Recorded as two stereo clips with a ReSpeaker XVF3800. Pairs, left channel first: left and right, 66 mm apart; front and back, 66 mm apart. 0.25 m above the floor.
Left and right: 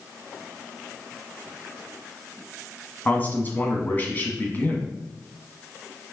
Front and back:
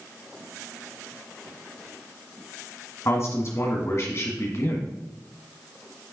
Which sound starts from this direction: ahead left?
A man speaking, at 3.0 s.